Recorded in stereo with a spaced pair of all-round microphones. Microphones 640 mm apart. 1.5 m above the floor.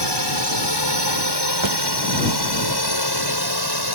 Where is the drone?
40° right (ahead or behind); by 3.9 s 35° right (ahead or behind).